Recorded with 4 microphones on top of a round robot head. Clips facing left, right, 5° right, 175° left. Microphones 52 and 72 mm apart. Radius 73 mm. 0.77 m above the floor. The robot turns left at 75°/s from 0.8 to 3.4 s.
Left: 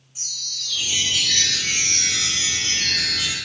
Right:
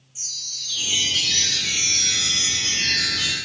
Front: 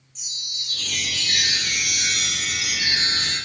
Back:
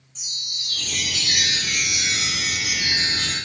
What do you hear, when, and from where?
0.1 s a chime: 130° left, 4.5 m; by 3.4 s 60° right, 4.5 m